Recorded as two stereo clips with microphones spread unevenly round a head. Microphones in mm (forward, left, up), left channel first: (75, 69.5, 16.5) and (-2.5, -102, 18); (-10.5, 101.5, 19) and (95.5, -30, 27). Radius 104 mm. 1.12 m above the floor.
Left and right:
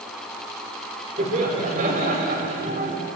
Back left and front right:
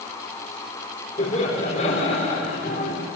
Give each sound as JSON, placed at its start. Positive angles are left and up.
{"t": 1.2, "sound": "laughter", "azimuth_deg": -170, "distance_m": 4.5}